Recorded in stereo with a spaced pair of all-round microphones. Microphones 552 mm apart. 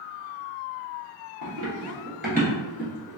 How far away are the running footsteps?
About 1.4 m.